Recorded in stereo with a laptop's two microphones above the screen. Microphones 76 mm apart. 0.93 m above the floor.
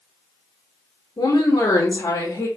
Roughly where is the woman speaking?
Left.